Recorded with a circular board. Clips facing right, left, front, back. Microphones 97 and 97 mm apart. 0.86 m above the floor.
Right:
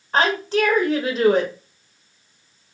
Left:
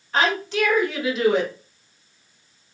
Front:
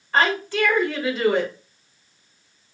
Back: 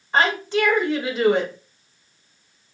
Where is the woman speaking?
120° right, 0.9 m.